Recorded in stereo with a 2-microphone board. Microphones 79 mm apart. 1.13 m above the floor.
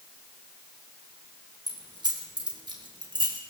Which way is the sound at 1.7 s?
60° right (ahead or behind).